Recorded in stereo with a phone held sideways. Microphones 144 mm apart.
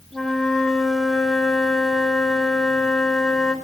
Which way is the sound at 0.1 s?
Centre (ahead or behind).